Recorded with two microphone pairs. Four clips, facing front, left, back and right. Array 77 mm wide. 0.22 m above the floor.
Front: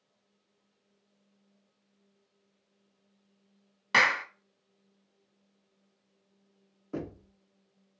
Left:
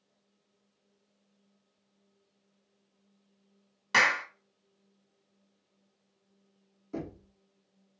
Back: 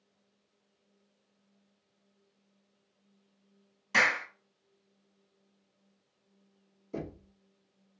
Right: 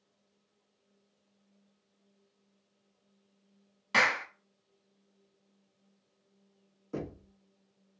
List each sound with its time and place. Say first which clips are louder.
3.9 s a clap: left 2 dB, front 2 dB; 15° left, 1.0 m
6.9 s knocking: even, front 2 dB; 20° right, 1.4 m